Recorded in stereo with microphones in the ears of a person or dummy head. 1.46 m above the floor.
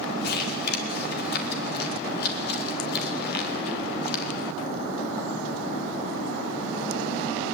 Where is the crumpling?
65° left (ahead or behind), 3 m.